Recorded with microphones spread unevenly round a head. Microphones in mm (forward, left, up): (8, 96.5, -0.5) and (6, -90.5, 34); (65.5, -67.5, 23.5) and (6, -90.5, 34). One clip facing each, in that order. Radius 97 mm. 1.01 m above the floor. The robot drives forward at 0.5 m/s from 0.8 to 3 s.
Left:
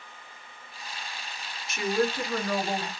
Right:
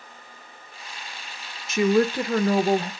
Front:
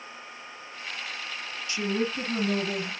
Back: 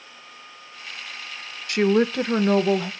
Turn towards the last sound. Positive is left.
turn(degrees=-150)